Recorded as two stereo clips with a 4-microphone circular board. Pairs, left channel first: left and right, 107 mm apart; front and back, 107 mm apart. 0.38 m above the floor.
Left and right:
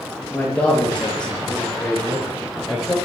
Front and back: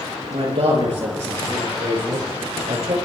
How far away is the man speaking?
About 7 m.